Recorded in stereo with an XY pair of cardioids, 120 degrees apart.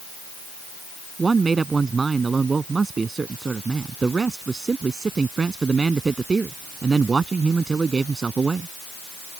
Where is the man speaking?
25° right.